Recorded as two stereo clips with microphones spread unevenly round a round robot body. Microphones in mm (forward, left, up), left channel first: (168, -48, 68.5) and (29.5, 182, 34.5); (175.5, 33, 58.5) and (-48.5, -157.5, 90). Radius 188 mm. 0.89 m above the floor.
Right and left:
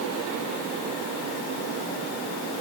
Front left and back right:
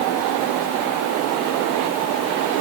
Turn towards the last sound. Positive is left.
No sound to turn to.